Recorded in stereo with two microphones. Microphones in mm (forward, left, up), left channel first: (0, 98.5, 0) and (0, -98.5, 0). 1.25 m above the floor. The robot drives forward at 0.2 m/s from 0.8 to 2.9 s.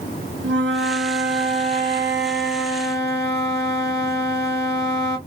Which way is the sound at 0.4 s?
70° right (ahead or behind).